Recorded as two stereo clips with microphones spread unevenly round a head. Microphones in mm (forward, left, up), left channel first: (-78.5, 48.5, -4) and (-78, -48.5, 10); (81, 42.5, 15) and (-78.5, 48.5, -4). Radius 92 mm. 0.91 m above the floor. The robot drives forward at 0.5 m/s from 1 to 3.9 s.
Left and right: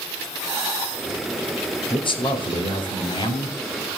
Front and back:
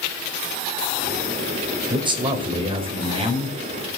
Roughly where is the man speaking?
Behind left.